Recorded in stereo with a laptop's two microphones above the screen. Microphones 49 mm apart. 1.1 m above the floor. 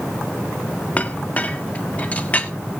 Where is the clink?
30° left (ahead or behind), 1.5 m.